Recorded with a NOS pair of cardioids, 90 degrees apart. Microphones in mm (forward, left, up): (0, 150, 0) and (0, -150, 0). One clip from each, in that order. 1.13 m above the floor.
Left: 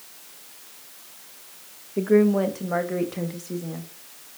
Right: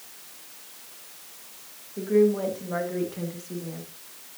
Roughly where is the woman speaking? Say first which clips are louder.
Left 2 dB; ahead left.